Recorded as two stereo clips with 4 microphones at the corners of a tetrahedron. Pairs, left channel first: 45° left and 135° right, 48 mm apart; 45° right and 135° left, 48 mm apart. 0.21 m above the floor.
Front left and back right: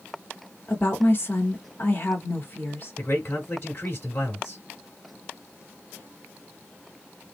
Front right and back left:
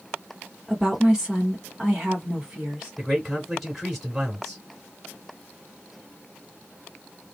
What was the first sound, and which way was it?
A woman speaking, 65° left.